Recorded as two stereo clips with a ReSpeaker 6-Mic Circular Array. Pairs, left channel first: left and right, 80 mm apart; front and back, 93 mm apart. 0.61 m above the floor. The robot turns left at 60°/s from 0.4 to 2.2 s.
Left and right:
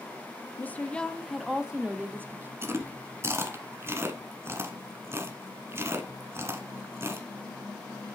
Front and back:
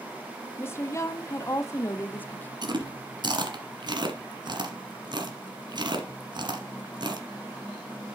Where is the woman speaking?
45° left, 0.7 m; by 2.5 s 55° right, 0.7 m.